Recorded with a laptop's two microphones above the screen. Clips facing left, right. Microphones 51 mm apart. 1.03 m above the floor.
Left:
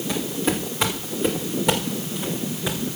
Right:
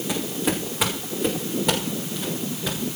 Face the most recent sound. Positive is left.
turn(degrees=15)  # may be behind; listen again after turning